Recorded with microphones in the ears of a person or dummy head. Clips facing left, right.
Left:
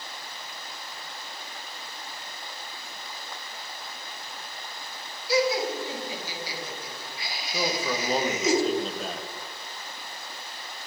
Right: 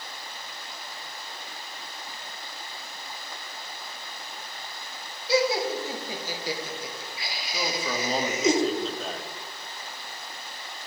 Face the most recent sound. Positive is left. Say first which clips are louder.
# left 2 dB
turn(degrees=0)  # may be behind; listen again after turning